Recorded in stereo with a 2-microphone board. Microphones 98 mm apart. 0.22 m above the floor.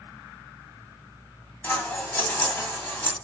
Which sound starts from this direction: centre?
Scissors, at 1.6 s.